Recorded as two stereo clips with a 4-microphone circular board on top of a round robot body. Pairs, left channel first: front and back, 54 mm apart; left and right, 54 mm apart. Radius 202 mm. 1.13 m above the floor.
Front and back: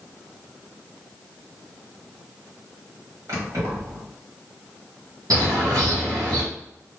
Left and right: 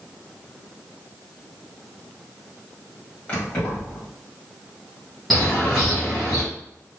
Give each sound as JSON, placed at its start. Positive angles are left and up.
{"t": 3.3, "sound": "keys jangling", "azimuth_deg": 155, "distance_m": 1.6}
{"t": 5.3, "sound": "a bird", "azimuth_deg": 180, "distance_m": 0.8}